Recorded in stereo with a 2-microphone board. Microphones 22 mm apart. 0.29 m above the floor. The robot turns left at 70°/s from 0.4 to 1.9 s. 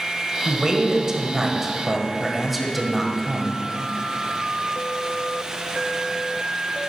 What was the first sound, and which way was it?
A man speaking, 75° right.